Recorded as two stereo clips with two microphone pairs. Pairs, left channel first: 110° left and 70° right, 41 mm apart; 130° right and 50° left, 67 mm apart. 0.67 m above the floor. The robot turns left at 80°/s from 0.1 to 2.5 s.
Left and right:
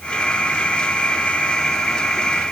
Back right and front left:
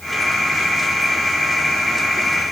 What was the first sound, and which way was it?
Only background noise.